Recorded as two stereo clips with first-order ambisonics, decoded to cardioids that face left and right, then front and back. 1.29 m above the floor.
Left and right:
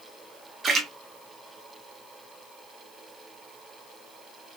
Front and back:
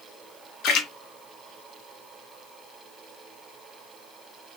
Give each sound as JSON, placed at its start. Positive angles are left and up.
{"t": 0.6, "sound": "a splash", "azimuth_deg": -25, "distance_m": 0.7}